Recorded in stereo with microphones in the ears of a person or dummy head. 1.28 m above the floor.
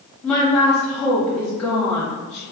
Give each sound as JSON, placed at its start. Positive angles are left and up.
{"t": 0.2, "sound": "a woman speaking", "side_deg": 5, "distance_m": 0.9}